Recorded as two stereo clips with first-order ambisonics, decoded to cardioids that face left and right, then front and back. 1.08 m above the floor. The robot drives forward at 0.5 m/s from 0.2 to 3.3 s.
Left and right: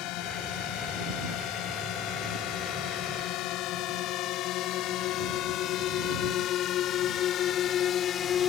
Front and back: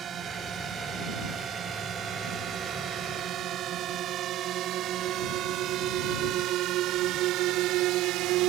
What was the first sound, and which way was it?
A drone, 120° left.